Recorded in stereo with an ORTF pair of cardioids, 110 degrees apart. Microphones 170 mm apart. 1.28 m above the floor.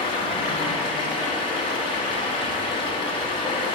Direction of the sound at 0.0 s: 30° left.